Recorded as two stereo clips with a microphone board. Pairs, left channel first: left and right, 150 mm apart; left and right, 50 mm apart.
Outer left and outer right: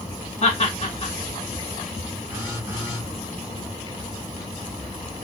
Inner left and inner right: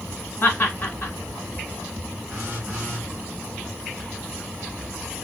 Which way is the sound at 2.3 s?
15° right (ahead or behind).